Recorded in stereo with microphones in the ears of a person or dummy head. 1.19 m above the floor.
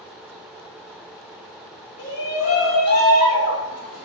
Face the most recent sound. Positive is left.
turn(degrees=50)  # may be behind; listen again after turning